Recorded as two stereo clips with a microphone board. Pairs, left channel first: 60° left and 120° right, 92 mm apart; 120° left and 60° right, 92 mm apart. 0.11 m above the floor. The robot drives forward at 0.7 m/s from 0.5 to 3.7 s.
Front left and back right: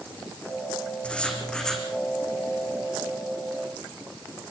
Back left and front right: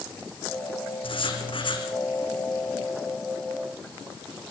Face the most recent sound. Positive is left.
turn(degrees=155)